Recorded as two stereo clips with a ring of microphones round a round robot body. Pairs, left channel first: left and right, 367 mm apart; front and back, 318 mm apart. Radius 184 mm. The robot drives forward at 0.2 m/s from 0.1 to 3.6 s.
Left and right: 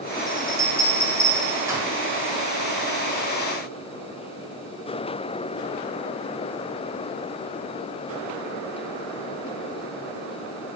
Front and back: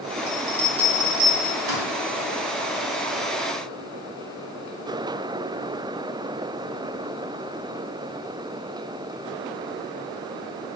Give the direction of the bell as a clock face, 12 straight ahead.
6 o'clock.